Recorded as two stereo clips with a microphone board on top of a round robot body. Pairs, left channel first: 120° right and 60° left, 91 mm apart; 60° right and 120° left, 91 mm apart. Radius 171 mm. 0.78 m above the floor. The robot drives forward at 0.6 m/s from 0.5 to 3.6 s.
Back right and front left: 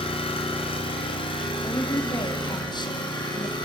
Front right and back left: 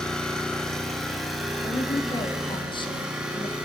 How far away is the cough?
No cough in this recording.